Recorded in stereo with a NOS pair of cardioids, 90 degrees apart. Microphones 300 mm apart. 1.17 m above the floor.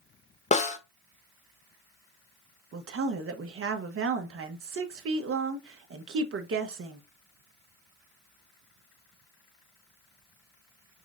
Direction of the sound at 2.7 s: 45° right.